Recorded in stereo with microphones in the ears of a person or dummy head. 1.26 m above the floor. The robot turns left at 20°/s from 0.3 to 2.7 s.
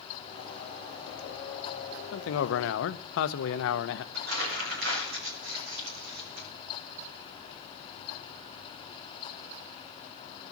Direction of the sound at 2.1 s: 65° left (ahead or behind).